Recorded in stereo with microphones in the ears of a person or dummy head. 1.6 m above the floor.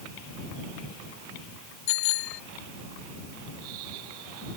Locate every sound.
1.9 s a bicycle bell: 75° left (ahead or behind)